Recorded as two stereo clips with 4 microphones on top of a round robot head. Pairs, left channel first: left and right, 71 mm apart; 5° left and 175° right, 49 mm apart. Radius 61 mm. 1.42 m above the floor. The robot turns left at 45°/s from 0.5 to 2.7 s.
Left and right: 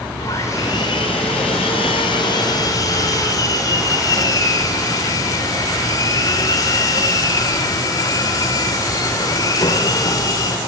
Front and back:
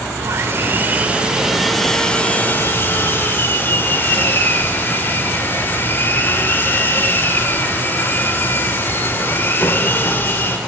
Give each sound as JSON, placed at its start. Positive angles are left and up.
{"t": 0.2, "sound": "sawing", "azimuth_deg": 150, "distance_m": 1.8}